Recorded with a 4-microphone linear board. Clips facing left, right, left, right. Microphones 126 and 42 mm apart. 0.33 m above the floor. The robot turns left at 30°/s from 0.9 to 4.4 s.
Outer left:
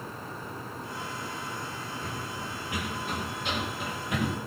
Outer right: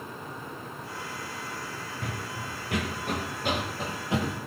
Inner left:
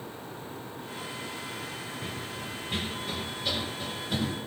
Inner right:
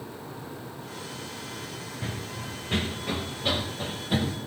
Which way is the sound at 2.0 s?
75° right (ahead or behind).